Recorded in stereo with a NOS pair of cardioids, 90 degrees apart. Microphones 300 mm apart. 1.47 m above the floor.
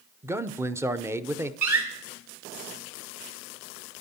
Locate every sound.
0.2 s a man speaking: 10° right, 0.6 m
1.6 s a door slam: 60° right, 3.5 m